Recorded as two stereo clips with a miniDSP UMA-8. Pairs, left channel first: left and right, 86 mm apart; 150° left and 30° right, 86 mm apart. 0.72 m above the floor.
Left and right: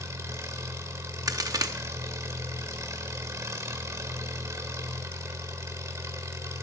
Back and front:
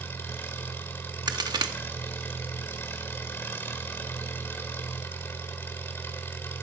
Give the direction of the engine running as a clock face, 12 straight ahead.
5 o'clock.